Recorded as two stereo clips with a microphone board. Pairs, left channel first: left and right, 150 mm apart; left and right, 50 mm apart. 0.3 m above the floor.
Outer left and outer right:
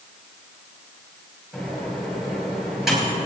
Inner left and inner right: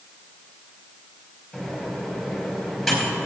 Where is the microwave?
Centre (ahead or behind), 5 m.